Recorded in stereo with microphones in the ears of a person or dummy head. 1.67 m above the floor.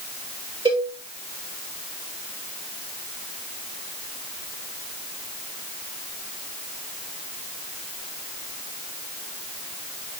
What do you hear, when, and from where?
0.7 s a cowbell: 25° right (ahead or behind), 3.5 m